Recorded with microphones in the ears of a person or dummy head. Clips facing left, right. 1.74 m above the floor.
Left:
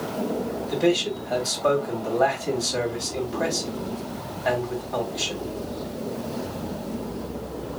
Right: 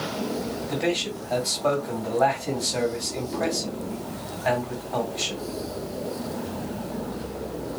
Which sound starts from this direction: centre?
A man speaking, at 0.7 s.